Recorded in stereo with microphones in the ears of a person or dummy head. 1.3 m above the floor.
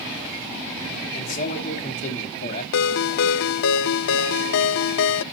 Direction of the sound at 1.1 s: 40° left (ahead or behind).